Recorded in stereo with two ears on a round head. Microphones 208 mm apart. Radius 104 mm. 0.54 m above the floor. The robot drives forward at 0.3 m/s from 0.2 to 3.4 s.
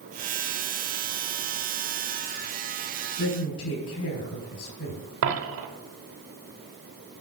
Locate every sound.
3.2 s a woman speaking: 70° left (ahead or behind), 4 m
5.2 s a dropped coin: 60° right (ahead or behind), 1.0 m